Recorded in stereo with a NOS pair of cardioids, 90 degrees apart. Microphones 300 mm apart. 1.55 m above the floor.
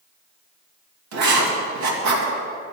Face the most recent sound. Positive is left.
turn(degrees=-70)